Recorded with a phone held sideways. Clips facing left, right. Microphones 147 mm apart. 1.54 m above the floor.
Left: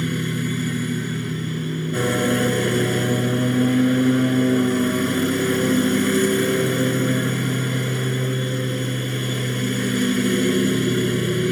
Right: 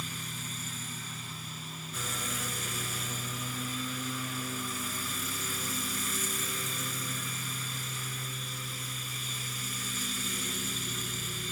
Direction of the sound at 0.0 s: 75° left (ahead or behind).